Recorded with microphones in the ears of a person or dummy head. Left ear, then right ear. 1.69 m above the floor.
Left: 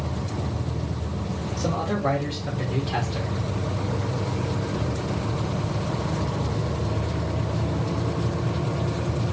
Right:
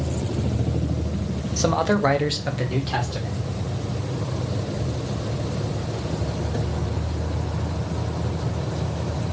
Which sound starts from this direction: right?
A man speaking, at 1.6 s.